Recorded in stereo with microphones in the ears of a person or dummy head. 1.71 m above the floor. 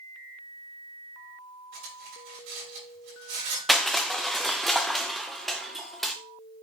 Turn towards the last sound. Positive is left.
turn(degrees=0)  # may be behind; listen again after turning